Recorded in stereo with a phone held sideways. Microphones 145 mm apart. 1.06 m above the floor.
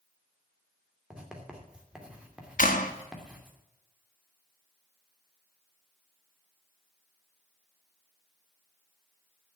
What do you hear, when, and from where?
1.1 s writing: 5° right (ahead or behind), 2.5 m
2.6 s a clap: 70° left (ahead or behind), 1.5 m